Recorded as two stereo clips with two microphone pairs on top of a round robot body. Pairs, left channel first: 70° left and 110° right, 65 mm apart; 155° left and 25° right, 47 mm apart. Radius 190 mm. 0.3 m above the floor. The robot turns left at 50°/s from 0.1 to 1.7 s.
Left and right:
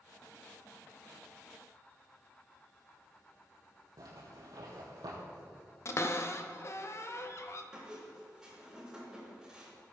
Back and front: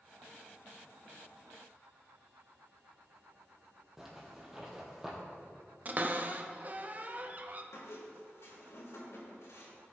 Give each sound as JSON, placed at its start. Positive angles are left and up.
{"t": 4.0, "sound": "a zipper", "azimuth_deg": -100, "distance_m": 3.0}
{"t": 5.8, "sound": "a cupboard door", "azimuth_deg": 30, "distance_m": 0.8}
{"t": 7.7, "sound": "a squeak", "azimuth_deg": 170, "distance_m": 3.5}